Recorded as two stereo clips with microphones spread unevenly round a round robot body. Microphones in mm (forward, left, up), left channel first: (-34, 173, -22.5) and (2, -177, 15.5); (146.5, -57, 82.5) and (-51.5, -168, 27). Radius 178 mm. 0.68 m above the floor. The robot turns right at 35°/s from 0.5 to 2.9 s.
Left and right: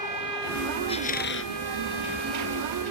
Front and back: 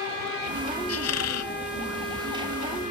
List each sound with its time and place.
0.9 s a squeak: 20° left; by 1.5 s 40° left